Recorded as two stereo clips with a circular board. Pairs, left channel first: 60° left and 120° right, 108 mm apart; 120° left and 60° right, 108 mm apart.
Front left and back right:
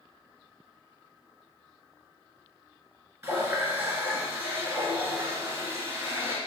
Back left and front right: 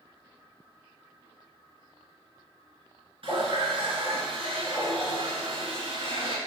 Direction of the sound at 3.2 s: 60° right.